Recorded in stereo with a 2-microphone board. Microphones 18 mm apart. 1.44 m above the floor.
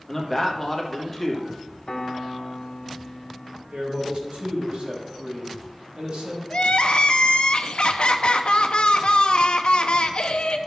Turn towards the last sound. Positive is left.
turn(degrees=60)  # may be behind; listen again after turning